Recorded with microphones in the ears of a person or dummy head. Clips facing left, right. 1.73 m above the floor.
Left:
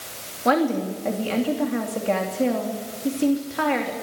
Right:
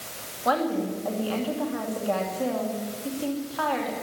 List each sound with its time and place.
0.5 s a woman speaking: 35° left (ahead or behind), 2.5 m